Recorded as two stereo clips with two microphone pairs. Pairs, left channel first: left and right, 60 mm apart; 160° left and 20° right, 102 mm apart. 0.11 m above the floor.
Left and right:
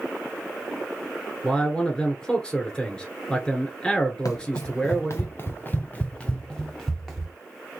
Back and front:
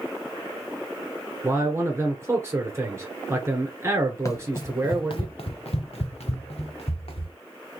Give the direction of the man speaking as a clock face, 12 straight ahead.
11 o'clock.